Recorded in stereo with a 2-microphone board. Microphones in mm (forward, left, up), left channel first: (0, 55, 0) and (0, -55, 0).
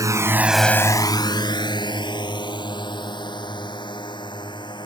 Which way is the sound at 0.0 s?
35° right (ahead or behind).